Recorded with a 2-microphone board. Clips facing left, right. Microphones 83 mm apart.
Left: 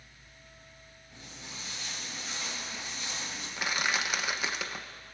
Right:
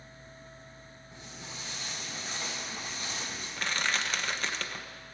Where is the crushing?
10° left (ahead or behind), 0.6 m.